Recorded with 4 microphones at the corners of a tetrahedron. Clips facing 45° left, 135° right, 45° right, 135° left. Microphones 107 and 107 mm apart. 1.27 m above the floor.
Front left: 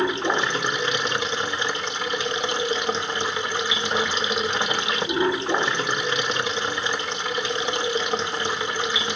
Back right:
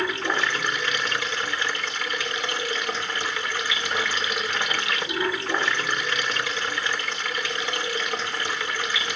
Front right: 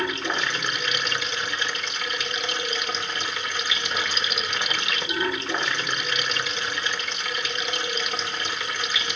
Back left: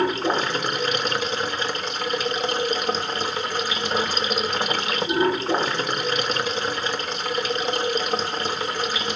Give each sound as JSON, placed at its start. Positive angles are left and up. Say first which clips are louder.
{"t": 0.0, "sound": "running water", "louder": "front left 3 dB, back left 6 dB", "azimuth_deg": 105, "distance_m": 1.1}